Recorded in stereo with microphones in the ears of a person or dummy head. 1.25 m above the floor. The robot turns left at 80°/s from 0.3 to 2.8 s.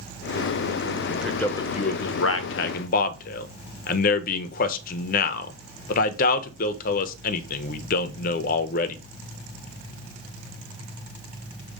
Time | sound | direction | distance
1.1 | a man speaking | 10° right (ahead or behind) | 1.0 m